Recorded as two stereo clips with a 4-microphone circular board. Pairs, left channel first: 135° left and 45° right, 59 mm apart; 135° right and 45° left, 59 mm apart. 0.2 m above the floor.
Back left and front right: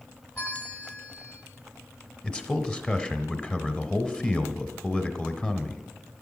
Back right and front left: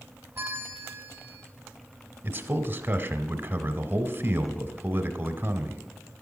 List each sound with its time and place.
0.3 s a bell: 90° left, 2 m
2.2 s a man speaking: 75° left, 1.2 m